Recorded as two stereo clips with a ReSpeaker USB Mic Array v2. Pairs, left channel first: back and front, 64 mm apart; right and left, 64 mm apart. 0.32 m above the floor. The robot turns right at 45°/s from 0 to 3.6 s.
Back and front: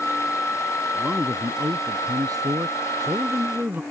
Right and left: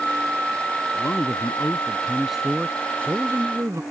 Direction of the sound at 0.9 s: 60° right.